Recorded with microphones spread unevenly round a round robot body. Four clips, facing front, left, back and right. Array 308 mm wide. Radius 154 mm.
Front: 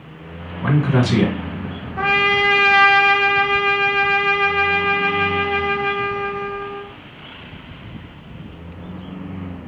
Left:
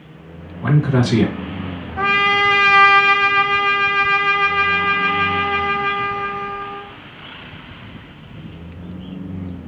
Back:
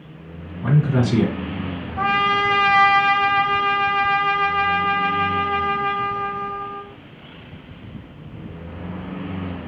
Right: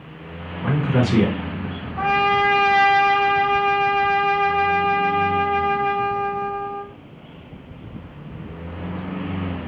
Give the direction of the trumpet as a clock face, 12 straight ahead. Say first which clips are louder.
Even, front 1 dB; 10 o'clock.